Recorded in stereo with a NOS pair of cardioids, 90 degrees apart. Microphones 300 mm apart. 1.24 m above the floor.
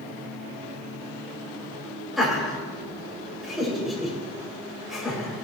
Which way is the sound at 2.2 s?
Straight ahead.